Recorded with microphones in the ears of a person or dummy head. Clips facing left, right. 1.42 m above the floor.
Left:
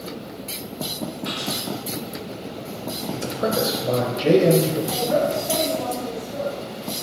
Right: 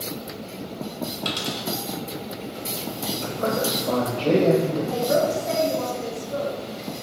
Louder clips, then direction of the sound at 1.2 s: Left 1 dB; 50° right (ahead or behind).